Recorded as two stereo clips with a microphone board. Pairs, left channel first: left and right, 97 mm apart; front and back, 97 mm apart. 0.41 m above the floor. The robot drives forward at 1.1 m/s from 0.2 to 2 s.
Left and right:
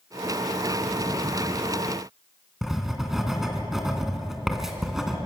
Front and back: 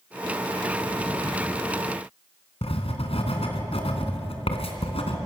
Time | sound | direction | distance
2.6 | writing | 5° right | 3 m